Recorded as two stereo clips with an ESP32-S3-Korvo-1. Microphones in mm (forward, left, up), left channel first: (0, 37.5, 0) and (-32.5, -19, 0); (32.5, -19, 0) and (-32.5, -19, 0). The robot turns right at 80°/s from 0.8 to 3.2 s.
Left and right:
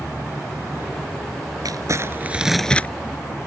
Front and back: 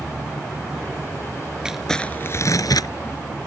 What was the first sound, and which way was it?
Crumpling, 105° right.